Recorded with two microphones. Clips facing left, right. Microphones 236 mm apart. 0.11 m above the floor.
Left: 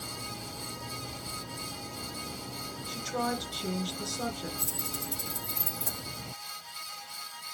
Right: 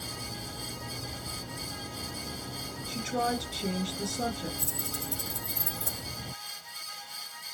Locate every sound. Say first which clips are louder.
2.9 s a woman speaking: right 2 dB; 25° right (ahead or behind), 1.7 m
4.6 s keys jangling: right 1 dB; 30° right (ahead or behind), 3 m